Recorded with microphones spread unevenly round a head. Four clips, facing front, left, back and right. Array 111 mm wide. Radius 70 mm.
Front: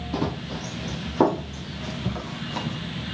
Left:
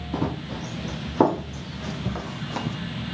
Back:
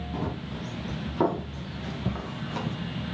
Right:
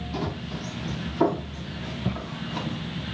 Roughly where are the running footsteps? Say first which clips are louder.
Left 4 dB, front 6 dB; ahead left.